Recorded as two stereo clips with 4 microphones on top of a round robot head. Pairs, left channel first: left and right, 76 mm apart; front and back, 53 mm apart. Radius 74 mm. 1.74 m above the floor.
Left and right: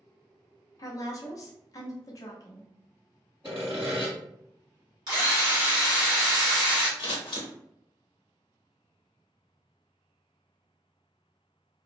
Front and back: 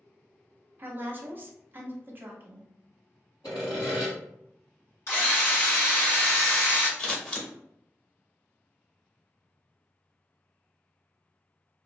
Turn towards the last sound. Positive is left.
turn(degrees=65)